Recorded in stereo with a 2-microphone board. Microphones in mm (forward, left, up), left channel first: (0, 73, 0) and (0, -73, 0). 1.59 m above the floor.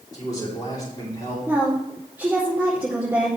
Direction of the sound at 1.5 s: 15° right (ahead or behind).